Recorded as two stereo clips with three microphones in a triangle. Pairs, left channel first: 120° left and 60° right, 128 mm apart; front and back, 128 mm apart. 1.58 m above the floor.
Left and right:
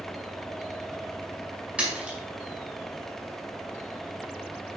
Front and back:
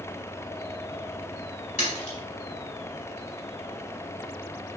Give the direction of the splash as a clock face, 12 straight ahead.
11 o'clock.